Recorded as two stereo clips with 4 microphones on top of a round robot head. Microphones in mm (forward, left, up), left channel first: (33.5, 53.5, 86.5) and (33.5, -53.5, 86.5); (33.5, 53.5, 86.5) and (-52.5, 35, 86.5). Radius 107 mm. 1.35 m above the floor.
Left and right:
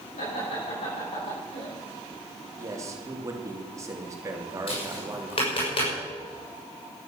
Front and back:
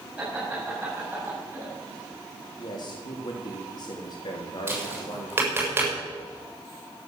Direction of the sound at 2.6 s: 30° right.